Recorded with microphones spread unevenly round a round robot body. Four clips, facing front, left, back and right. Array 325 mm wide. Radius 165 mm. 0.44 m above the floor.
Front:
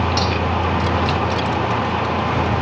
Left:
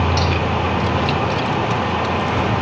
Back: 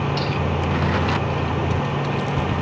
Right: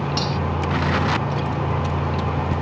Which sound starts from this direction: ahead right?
Cutlery clinking, at 0.2 s.